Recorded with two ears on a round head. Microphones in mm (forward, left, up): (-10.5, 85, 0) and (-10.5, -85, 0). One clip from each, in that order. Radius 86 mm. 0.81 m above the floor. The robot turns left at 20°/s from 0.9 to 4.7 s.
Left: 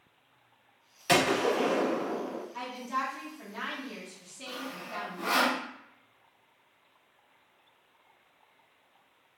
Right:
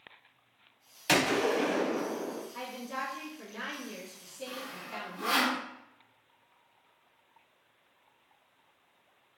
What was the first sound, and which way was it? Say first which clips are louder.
A gunshot: left 1 dB; 20° right (ahead or behind).